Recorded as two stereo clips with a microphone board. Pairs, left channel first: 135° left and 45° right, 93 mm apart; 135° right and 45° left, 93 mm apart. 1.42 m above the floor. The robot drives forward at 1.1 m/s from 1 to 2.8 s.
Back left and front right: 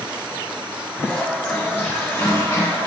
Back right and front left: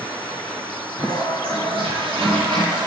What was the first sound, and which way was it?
A toilet flushing, 50° left.